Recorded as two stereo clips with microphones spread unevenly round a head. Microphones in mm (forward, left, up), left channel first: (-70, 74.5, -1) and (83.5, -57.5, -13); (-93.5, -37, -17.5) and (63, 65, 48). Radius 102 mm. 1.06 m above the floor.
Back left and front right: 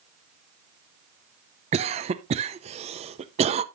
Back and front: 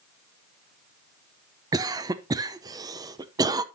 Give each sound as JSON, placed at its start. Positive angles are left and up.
{"t": 1.7, "sound": "a cough", "azimuth_deg": -55, "distance_m": 0.6}